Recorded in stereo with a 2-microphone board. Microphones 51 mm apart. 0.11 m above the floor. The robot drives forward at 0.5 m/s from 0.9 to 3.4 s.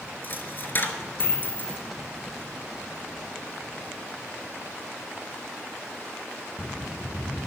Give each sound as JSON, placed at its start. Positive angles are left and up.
{"t": 0.2, "sound": "a dropped coin", "side_deg": 45, "distance_m": 0.8}